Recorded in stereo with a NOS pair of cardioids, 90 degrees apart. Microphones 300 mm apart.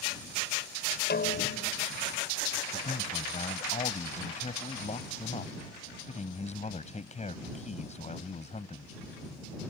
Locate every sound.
1.1 s a snare drum: 35° left
2.7 s a man speaking: 20° left